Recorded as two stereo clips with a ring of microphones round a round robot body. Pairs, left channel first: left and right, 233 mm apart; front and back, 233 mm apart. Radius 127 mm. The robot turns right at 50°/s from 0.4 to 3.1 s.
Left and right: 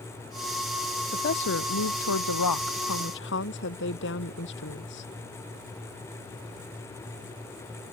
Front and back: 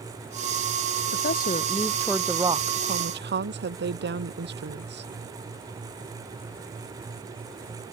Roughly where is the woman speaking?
Ahead left.